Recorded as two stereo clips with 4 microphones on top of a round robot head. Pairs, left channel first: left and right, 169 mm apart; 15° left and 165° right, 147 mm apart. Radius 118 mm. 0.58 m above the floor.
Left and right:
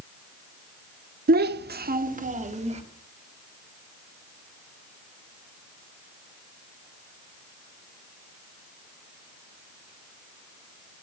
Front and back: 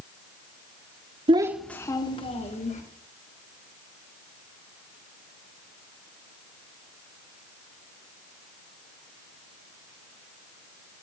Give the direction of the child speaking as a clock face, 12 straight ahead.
4 o'clock.